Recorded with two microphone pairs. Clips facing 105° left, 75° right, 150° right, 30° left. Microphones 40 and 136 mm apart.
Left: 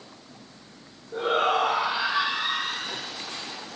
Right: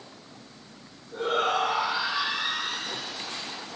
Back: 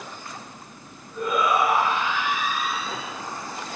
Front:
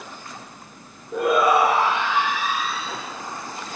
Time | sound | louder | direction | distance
1.1 | a shout | left 2 dB, front 5 dB | 40° left | 8 m